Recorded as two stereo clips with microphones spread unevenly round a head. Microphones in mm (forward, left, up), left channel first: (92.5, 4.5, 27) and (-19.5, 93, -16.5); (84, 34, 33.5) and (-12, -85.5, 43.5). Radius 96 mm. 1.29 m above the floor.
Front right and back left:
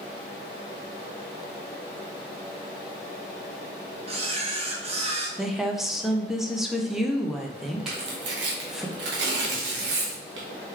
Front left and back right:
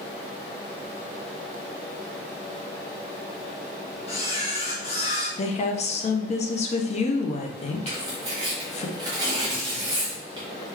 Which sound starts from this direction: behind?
Tearing paper, at 7.9 s.